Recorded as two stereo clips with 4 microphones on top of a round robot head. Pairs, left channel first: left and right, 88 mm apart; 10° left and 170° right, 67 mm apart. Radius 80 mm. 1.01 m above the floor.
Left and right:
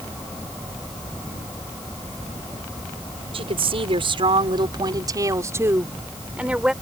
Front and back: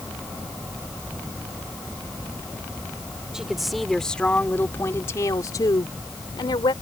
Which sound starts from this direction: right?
A woman speaking, at 3.3 s.